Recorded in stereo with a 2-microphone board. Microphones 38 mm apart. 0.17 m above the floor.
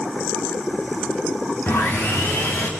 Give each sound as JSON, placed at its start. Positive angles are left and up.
{"t": 1.7, "sound": "sawing", "side_deg": 75, "distance_m": 5.5}